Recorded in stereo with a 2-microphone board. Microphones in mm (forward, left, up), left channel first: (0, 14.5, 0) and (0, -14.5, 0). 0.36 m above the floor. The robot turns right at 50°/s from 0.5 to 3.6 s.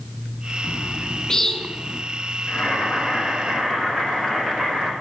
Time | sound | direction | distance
0.6 | a bird | 60° left (ahead or behind) | 0.9 m
2.5 | boiling | 130° left | 5 m